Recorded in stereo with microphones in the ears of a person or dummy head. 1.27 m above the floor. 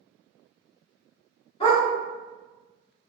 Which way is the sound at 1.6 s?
30° left (ahead or behind).